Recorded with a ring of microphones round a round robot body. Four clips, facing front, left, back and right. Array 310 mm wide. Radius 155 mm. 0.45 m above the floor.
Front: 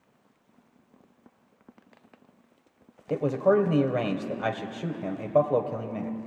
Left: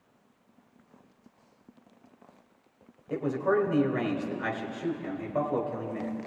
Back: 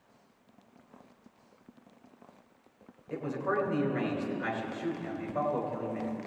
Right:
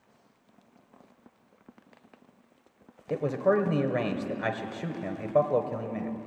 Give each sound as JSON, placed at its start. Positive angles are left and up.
{"t": 3.1, "sound": "a man speaking", "azimuth_deg": -35, "distance_m": 2.0}